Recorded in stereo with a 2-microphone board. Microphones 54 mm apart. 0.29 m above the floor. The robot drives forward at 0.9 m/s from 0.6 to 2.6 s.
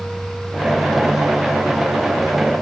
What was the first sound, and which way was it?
Only background noise.